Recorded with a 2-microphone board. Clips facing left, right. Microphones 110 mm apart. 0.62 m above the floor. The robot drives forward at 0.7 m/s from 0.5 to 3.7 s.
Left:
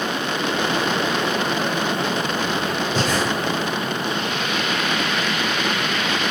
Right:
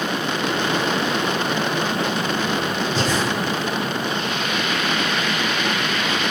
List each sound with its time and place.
3.0 s breathing: 55° left (ahead or behind), 3.5 m; by 3.2 s 50° left (ahead or behind), 3.5 m